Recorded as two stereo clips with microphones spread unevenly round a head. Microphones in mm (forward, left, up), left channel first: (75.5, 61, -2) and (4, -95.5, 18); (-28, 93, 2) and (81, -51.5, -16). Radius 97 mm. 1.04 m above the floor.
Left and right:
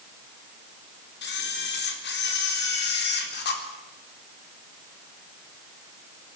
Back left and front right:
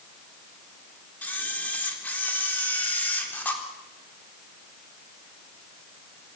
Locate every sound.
1.2 s a camera shutter: 45° left, 4 m